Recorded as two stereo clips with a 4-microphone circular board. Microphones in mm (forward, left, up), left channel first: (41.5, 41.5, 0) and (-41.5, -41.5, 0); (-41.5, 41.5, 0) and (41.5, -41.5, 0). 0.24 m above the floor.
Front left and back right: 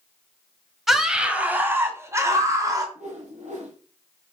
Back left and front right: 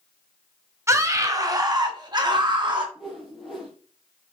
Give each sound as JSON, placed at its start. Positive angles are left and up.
{"t": 0.9, "sound": "a scream", "azimuth_deg": -50, "distance_m": 1.3}
{"t": 3.0, "sound": "a whoosh", "azimuth_deg": -130, "distance_m": 3.0}